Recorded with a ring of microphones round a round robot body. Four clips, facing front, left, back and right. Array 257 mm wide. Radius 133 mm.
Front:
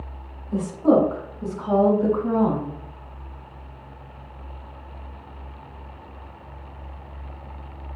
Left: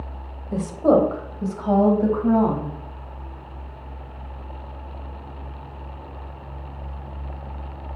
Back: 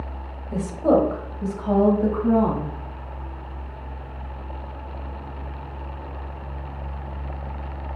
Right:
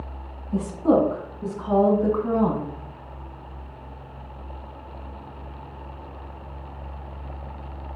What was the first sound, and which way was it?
A woman speaking, 115° left.